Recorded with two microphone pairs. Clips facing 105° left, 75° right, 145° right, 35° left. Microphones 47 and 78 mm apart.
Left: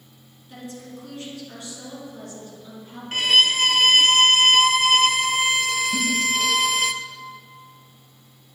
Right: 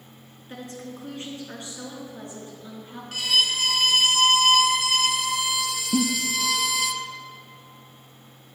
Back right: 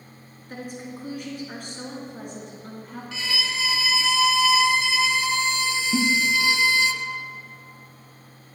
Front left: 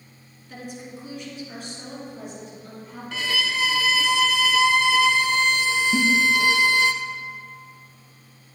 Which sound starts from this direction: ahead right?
A giggle, at 5.9 s.